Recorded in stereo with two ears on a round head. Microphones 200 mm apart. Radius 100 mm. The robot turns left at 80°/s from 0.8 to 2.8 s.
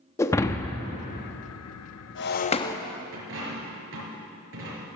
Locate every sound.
0.2 s breaking glass: 15° left (ahead or behind), 0.7 m; by 2.8 s 10° left (ahead or behind), 0.7 m
3.1 s a dropped coin: 60° right (ahead or behind), 4.5 m